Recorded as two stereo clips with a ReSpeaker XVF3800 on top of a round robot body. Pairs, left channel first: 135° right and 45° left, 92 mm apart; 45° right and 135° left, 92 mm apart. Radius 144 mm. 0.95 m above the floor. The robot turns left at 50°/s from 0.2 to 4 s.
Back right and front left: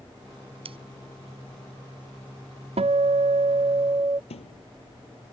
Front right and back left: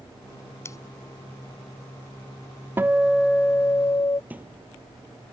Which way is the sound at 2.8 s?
65° left.